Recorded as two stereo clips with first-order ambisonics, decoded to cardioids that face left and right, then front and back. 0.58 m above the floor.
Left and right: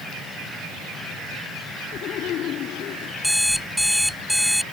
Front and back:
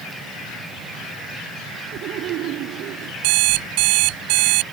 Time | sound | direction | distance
1.9 | laughter | 140° left | ?
3.2 | an alarm clock | straight behind | ?